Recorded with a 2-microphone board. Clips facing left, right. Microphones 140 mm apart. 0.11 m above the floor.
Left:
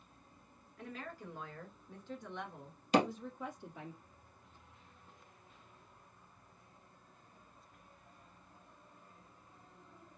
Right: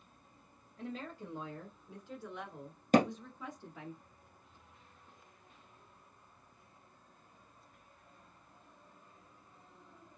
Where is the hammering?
45° right (ahead or behind), 1.9 m.